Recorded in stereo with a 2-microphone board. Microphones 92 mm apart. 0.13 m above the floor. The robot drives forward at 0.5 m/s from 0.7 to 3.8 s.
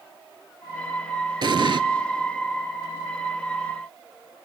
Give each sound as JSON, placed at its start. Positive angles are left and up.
{"t": 1.4, "sound": "an explosion", "side_deg": -60, "distance_m": 0.5}